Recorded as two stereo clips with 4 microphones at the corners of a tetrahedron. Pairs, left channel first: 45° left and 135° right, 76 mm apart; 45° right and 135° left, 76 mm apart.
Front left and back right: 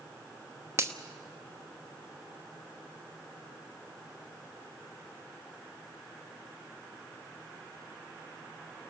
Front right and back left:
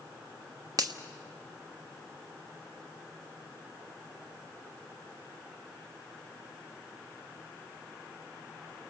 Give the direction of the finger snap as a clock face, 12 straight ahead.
6 o'clock.